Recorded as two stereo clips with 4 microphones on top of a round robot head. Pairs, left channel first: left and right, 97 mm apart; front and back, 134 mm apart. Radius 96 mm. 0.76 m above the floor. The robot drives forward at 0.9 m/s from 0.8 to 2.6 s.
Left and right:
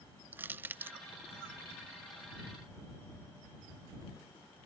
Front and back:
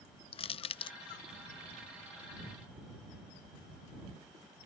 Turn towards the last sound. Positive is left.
turn(degrees=-170)